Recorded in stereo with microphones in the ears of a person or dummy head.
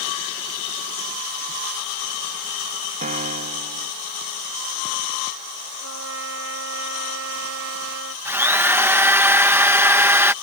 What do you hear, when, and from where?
3.0 s a piano: 40° right (ahead or behind)
5.8 s a trumpet: 80° right
8.2 s a drill: 10° right (ahead or behind)